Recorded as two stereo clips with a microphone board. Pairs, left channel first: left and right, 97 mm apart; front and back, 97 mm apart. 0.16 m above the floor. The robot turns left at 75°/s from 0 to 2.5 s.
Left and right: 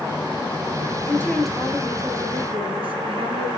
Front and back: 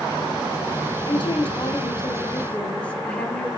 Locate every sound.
1.1 s a woman speaking: 30° left, 2 m; by 3.5 s 75° right, 2 m